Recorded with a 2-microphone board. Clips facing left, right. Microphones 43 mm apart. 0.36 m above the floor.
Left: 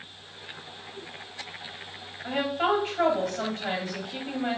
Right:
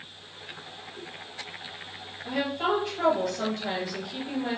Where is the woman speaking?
45° left (ahead or behind), 1.9 m.